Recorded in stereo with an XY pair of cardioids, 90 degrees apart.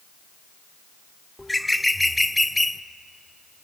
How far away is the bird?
About 0.8 m.